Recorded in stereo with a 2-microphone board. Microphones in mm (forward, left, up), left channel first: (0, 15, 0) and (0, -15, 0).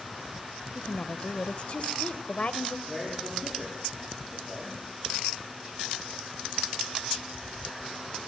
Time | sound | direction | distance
0.8 | a woman speaking | 40° left (ahead or behind) | 1.2 m
2.9 | a man speaking | 5° left (ahead or behind) | 7.5 m